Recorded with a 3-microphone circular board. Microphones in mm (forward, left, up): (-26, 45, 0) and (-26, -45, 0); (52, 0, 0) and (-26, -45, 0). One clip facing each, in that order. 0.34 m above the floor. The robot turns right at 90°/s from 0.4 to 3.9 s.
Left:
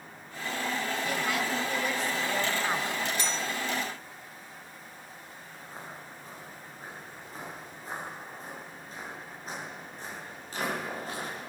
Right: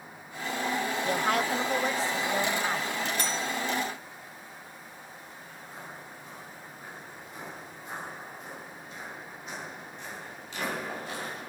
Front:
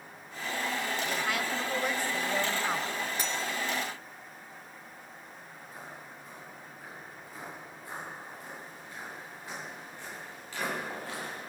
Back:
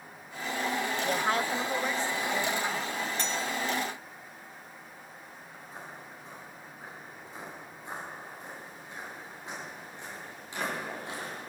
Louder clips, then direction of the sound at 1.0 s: Right 5 dB, back 6 dB; 135° right.